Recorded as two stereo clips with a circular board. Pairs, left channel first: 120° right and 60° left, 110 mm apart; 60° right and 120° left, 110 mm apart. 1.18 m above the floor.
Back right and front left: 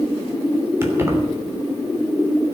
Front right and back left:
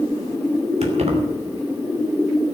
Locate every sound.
0.8 s keys jangling: 130° left, 3 m